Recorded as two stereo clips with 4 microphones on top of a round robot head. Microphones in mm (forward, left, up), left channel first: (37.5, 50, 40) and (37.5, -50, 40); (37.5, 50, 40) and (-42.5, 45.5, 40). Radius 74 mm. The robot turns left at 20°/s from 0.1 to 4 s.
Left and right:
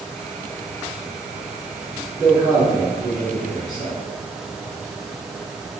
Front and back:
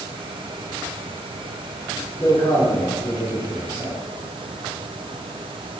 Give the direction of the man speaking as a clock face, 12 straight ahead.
1 o'clock.